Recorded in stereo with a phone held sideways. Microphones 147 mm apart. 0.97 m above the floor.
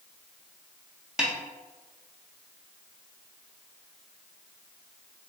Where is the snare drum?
5° right (ahead or behind), 0.5 m.